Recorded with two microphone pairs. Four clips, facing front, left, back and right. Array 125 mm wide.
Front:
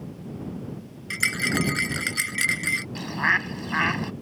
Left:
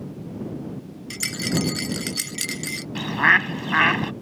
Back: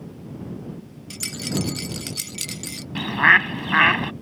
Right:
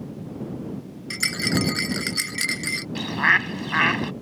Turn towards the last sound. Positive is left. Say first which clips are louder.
# left 2 dB, back 9 dB
turn(degrees=155)